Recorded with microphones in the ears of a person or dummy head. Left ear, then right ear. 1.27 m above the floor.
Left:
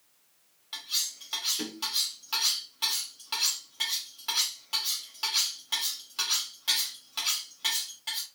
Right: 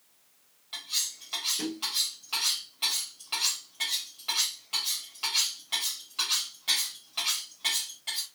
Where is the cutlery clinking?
15° left (ahead or behind), 1.4 m.